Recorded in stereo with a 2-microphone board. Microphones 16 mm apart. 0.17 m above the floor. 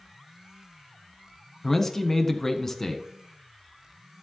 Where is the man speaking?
20° left (ahead or behind), 1.4 m.